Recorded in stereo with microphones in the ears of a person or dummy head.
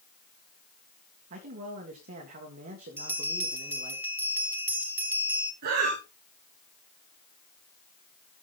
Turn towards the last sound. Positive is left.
turn(degrees=-55)  # may be behind; listen again after turning